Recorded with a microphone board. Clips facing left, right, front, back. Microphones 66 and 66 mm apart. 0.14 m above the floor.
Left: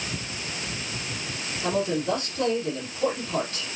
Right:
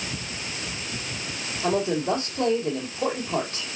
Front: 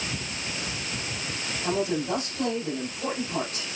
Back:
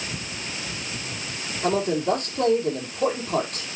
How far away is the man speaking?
About 4.5 m.